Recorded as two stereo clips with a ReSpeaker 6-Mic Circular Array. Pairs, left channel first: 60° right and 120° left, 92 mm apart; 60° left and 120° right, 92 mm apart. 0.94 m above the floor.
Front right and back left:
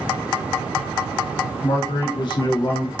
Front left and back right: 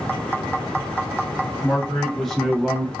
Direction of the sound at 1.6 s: 20° right.